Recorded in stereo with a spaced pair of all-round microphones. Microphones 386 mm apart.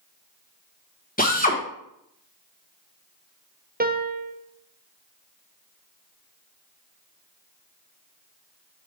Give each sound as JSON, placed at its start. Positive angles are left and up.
{"t": 1.2, "sound": "a drill", "side_deg": 20, "distance_m": 1.2}
{"t": 3.8, "sound": "a piano", "side_deg": -25, "distance_m": 0.5}